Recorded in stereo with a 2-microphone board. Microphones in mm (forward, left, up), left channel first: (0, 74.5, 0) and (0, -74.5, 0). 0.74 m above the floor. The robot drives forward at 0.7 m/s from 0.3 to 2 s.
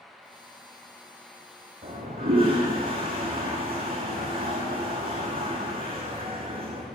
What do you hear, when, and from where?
1.8 s a toilet flushing: 85° right, 6.5 m